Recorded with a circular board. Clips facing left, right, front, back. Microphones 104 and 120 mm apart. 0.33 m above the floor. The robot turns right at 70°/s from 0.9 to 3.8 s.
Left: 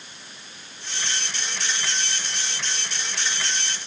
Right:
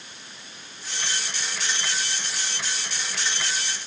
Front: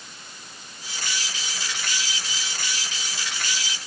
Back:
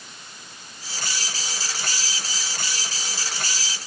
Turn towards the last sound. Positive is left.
No sound to turn to.